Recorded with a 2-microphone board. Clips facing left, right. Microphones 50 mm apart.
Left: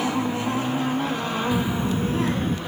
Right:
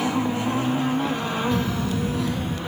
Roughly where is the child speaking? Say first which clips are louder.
Left 1 dB; centre.